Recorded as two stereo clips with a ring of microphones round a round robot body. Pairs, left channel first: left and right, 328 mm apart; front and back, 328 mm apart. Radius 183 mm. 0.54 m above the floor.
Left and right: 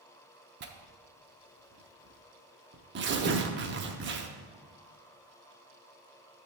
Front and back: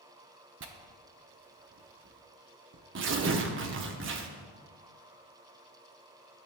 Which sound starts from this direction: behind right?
Tearing paper, at 0.6 s.